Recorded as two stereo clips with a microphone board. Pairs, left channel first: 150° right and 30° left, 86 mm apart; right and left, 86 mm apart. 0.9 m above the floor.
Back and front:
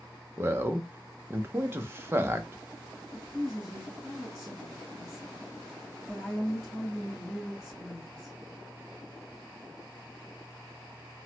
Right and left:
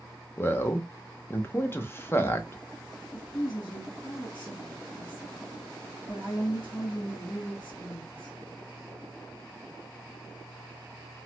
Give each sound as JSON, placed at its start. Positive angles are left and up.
{"t": 0.4, "sound": "a man speaking", "azimuth_deg": -30, "distance_m": 0.5}
{"t": 3.1, "sound": "a woman speaking", "azimuth_deg": -60, "distance_m": 2.5}